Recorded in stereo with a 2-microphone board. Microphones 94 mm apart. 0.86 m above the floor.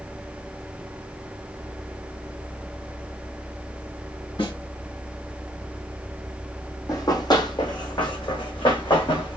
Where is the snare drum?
70° left (ahead or behind), 3 m.